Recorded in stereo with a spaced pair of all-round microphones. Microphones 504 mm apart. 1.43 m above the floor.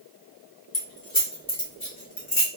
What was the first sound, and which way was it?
Keys jangling, 60° left (ahead or behind).